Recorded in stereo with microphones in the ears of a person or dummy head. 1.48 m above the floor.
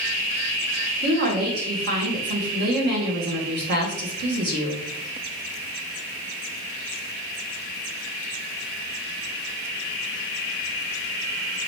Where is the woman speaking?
50° right (ahead or behind), 0.9 m.